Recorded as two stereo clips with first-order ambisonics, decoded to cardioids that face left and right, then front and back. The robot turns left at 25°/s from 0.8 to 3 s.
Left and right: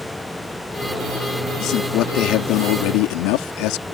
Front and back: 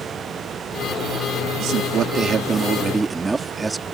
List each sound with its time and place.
1.6 s a man speaking: 135° left; by 4.0 s 100° left